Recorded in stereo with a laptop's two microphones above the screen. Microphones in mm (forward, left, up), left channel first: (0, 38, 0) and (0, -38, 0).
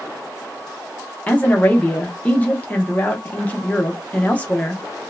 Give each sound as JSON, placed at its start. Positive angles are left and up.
{"t": 1.3, "sound": "a woman speaking", "side_deg": 20, "distance_m": 0.6}